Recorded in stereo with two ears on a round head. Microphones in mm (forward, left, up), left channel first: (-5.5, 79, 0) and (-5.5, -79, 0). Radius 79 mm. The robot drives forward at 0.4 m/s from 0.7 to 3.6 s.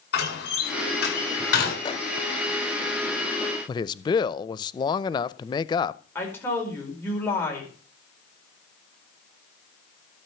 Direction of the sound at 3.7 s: 25° left (ahead or behind).